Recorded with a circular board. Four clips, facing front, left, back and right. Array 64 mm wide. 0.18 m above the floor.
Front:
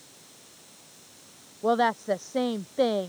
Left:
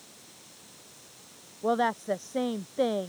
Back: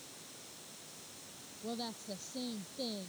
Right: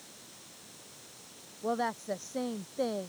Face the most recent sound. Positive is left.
turn(degrees=15)